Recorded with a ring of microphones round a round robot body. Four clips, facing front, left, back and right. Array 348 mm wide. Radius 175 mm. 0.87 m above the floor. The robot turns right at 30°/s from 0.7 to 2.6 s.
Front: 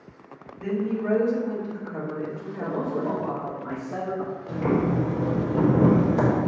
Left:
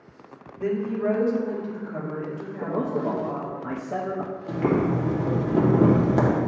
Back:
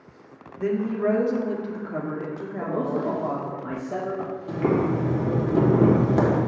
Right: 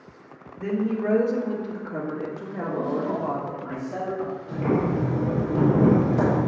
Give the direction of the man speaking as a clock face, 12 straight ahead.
8 o'clock.